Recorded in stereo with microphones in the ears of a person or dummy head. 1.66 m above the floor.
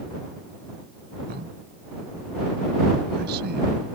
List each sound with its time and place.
1.3 s a man speaking: 50° right (ahead or behind)